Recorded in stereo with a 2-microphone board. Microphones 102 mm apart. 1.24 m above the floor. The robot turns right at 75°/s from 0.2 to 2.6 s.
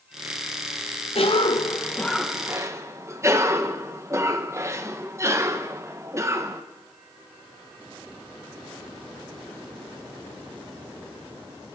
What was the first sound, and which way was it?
A cough, 100° left.